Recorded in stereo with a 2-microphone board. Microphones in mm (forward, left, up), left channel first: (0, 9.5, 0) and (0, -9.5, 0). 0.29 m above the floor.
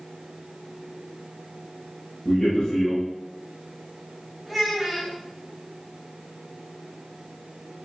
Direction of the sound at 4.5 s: 15° right (ahead or behind).